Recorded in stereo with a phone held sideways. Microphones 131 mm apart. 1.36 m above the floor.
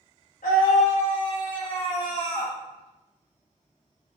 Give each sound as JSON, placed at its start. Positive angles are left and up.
{"t": 0.4, "sound": "a scream", "side_deg": 75, "distance_m": 1.9}